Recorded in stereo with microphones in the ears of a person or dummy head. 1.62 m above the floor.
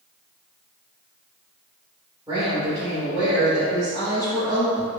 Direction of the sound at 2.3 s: 15° right (ahead or behind).